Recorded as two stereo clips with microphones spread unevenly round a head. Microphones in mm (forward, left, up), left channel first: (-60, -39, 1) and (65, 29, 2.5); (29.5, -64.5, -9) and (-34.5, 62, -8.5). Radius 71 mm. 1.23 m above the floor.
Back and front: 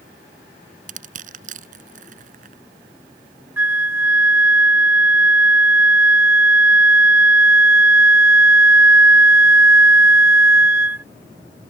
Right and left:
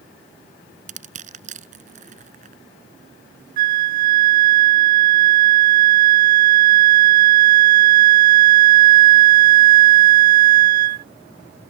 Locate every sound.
0.9 s crushing: 70° left
3.6 s a flute: 105° left